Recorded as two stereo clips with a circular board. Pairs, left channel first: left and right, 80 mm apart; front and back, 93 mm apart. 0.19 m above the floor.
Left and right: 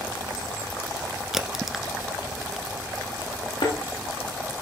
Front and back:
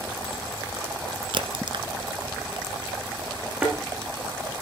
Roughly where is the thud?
Left.